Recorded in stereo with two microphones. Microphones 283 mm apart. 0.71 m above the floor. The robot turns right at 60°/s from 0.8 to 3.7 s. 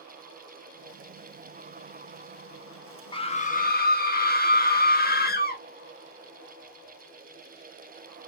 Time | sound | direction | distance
3.1 | a scream | 30° left | 0.5 m